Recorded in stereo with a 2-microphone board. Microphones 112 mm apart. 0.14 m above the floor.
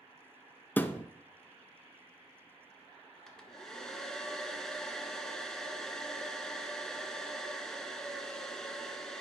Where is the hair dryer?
5° left (ahead or behind), 0.8 m.